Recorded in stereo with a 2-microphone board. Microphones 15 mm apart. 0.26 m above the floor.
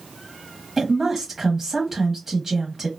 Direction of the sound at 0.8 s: 25° right (ahead or behind).